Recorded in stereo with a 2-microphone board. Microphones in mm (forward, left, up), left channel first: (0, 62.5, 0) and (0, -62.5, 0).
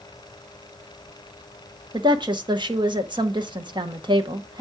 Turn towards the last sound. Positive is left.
turn(degrees=-40)  # may be behind; listen again after turning